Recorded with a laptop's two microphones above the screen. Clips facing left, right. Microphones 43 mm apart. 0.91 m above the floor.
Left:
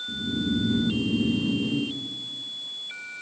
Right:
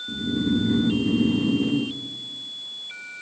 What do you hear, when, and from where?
0.1 s snoring: 60° right (ahead or behind), 0.8 m